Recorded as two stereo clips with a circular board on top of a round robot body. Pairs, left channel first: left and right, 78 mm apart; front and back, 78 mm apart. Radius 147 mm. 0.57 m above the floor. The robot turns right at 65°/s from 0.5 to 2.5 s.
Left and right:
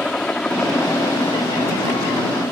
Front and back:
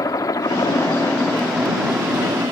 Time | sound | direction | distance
0.0 | a helicopter | 15° left | ?